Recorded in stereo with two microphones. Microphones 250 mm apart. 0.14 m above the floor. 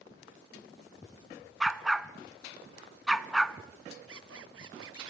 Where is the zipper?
65° right (ahead or behind), 0.6 m.